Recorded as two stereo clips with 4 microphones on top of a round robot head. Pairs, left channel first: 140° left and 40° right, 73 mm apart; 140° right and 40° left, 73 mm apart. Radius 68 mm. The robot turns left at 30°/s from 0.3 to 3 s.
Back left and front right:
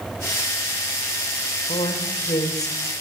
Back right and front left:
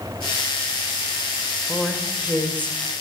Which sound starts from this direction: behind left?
A woman speaking, at 1.7 s.